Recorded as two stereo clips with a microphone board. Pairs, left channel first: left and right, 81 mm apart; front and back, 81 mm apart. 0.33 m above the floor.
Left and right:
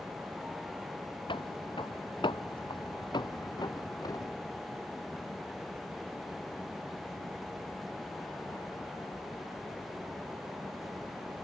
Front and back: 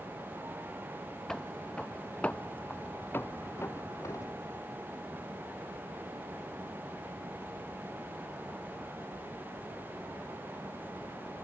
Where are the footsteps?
85° left; by 4.3 s 45° left.